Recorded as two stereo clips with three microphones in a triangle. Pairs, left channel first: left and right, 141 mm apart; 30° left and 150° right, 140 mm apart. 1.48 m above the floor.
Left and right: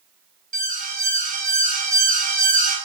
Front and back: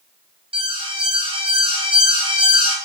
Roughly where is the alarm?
Right.